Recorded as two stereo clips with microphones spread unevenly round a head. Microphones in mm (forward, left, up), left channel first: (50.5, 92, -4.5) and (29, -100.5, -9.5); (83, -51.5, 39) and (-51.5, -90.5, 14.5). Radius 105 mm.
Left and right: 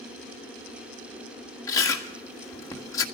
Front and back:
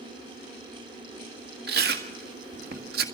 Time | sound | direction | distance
1.7 | chewing | 160° left | 1.6 m